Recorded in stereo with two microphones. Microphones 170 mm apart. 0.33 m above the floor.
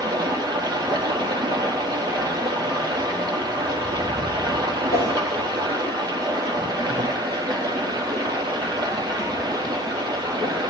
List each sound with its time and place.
0.0 s running water: 25° right (ahead or behind), 3.5 m
4.9 s a whoosh: 75° left (ahead or behind), 7.5 m